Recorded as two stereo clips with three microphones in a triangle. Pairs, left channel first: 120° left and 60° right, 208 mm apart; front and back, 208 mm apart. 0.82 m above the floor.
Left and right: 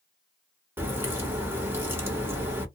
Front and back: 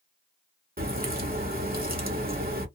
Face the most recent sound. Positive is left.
turn(degrees=-140)